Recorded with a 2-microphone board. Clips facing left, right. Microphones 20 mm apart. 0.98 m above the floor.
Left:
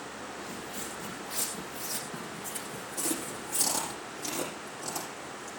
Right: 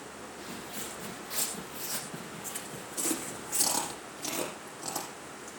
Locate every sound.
0.4 s footsteps: 65° right (ahead or behind), 7.5 m; by 4.0 s 30° right (ahead or behind), 3.5 m
3.0 s chewing: 30° right (ahead or behind), 9.5 m